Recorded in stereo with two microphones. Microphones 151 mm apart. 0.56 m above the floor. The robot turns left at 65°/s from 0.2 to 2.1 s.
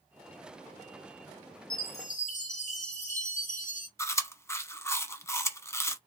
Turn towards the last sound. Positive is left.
turn(degrees=20)  # may be behind; listen again after turning